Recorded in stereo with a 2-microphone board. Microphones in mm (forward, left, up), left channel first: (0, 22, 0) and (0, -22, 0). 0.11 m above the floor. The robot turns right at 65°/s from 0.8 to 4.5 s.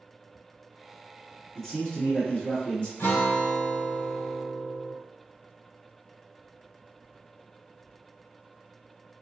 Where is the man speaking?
15° left, 1.5 m; by 2.9 s 100° left, 1.5 m.